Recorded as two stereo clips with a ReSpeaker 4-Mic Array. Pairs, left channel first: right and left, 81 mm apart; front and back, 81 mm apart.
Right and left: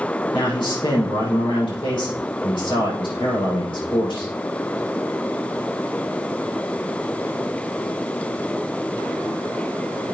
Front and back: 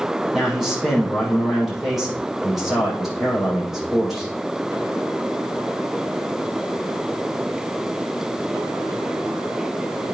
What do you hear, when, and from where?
0.3 s a man speaking: 95° right, 6 m